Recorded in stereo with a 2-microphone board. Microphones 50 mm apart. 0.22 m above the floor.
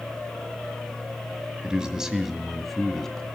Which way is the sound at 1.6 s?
20° right (ahead or behind).